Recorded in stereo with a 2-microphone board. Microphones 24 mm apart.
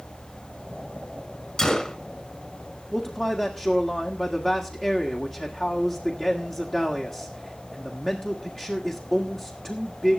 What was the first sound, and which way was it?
A gunshot, 30° left (ahead or behind).